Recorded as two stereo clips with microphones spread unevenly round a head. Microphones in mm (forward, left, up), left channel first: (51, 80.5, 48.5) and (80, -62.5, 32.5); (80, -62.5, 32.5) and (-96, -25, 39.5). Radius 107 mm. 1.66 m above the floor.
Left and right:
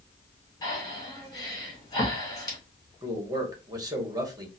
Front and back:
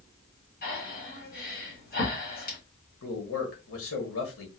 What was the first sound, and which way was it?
Breathing, 35° left.